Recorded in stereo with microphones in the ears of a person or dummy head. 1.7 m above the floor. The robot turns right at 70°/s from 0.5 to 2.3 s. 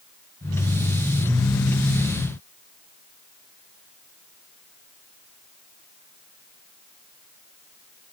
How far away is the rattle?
No rattle in this recording.